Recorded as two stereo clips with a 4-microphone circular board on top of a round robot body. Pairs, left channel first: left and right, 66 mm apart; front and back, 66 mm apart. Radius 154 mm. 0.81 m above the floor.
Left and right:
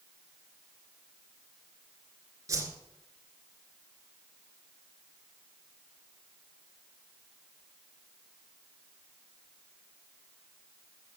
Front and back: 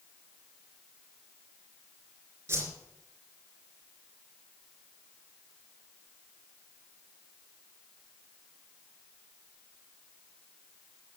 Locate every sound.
2.5 s a whoosh: 125° right, 3 m